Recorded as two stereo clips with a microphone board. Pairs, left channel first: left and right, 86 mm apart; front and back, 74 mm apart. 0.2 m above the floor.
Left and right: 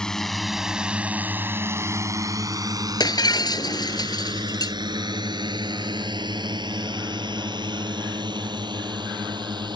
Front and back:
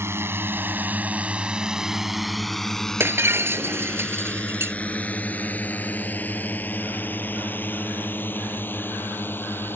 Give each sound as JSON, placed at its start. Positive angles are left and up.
{"t": 0.0, "sound": "a drone", "azimuth_deg": 165}
{"t": 3.0, "sound": "breaking glass", "azimuth_deg": 125}